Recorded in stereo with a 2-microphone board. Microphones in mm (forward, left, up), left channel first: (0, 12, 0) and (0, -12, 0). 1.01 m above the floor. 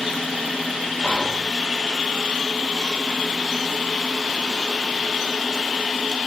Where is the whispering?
80° left, 4.5 m.